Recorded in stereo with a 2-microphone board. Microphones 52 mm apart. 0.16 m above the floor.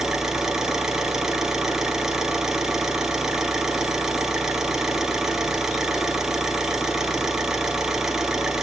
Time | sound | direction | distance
0.0 | an engine running | 10° right (ahead or behind) | 2 m